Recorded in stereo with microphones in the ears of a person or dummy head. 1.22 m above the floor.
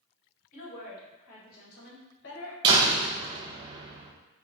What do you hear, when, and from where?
0.5 s a woman speaking: 45° left (ahead or behind), 1.9 m; by 2.5 s 70° left (ahead or behind), 1.2 m
2.6 s a door slam: 25° right (ahead or behind), 0.6 m